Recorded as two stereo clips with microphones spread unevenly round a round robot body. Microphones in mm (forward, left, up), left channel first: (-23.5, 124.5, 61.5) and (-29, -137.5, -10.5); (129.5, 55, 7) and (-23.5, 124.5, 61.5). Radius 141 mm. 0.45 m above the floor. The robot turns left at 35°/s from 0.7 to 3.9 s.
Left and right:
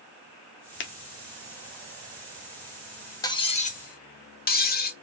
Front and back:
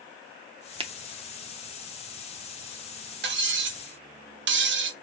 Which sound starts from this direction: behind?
Cutlery clinking, at 3.2 s.